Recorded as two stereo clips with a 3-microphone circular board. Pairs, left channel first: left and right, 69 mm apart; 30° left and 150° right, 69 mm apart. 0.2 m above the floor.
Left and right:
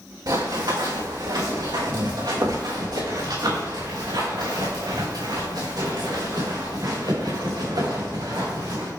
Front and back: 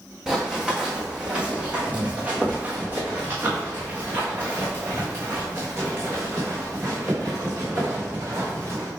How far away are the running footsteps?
About 2.5 m.